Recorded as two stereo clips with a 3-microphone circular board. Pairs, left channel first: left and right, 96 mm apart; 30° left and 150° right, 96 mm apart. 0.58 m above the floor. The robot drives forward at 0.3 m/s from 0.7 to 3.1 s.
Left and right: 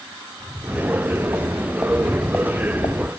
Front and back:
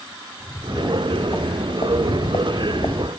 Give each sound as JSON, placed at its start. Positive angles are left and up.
{"t": 0.4, "sound": "footsteps", "azimuth_deg": -40, "distance_m": 2.5}